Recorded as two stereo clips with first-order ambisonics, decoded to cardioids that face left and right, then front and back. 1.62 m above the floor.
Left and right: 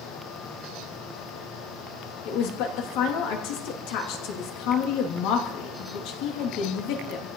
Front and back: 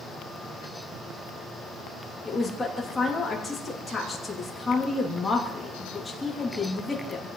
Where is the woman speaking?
75° left, 3 m.